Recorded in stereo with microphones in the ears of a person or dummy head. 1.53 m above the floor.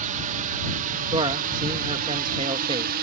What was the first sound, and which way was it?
A drone, 45° right (ahead or behind).